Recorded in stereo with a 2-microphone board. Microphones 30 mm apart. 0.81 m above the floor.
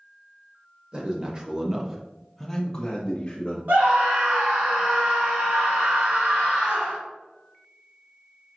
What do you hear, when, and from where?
0.9 s a man speaking: 30° right (ahead or behind), 1.2 m; by 3.6 s 30° left (ahead or behind), 1.1 m
3.7 s a scream: 60° right (ahead or behind), 2 m